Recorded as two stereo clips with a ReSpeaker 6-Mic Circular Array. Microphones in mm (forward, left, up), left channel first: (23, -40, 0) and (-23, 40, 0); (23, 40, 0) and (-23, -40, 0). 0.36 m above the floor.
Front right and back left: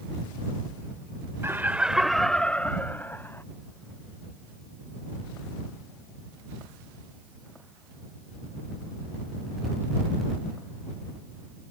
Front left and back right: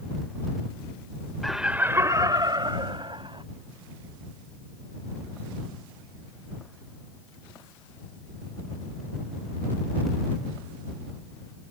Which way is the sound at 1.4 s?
145° left.